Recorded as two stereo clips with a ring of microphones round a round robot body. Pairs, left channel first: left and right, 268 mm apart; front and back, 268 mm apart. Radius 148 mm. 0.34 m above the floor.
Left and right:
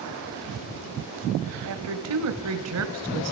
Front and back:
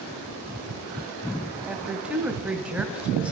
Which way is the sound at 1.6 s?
95° right.